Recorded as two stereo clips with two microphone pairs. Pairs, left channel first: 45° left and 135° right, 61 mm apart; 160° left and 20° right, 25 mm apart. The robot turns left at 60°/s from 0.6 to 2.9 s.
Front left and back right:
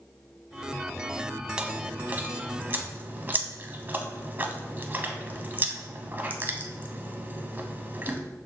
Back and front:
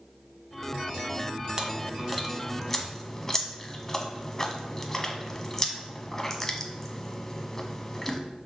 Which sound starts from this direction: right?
Chewing, at 1.6 s.